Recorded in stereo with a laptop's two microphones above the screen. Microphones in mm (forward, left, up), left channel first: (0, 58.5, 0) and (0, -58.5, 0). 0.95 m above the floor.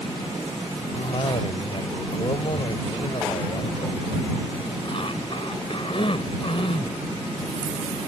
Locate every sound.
0.9 s a cough: 50° left (ahead or behind)